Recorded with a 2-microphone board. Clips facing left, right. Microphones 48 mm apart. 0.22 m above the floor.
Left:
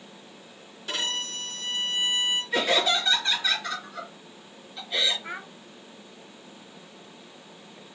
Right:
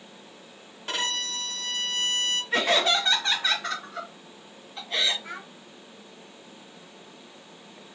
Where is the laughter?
45° right (ahead or behind), 1.6 m.